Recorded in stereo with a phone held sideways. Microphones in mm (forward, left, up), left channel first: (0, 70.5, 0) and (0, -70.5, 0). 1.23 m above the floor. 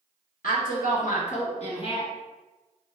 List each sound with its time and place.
0.4 s a woman speaking: 90° left, 1.1 m; by 2.1 s 40° left (ahead or behind), 1.3 m